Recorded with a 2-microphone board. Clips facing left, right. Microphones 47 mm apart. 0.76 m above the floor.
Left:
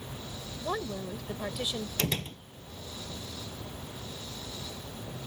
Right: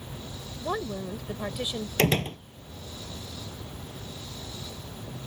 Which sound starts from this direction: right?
A door slam, at 2.0 s.